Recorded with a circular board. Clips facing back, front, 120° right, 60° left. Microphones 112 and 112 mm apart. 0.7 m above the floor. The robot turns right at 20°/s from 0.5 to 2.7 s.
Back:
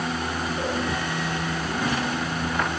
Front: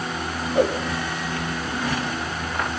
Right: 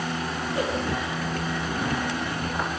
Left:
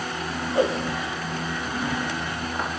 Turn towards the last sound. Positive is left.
turn(degrees=40)